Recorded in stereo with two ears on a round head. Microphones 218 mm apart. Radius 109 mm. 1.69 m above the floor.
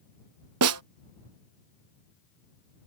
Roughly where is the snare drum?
Right.